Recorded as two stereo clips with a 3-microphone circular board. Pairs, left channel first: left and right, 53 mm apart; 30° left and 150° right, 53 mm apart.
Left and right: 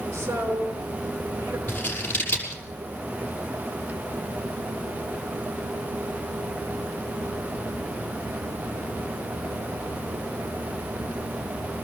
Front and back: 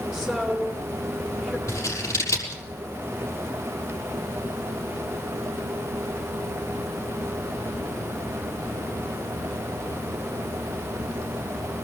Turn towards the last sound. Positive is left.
turn(degrees=35)